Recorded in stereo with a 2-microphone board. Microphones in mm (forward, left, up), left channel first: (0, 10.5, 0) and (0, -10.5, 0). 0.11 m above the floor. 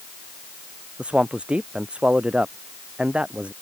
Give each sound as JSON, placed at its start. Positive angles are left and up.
{"t": 1.0, "sound": "a man speaking", "side_deg": -60}